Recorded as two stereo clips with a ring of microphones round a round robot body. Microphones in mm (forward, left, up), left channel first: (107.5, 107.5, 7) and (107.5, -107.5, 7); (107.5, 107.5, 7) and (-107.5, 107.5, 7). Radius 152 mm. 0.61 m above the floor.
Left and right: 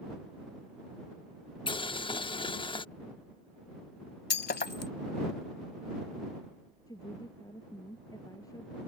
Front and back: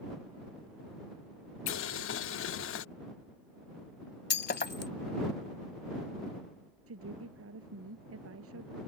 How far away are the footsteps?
I don't hear footsteps.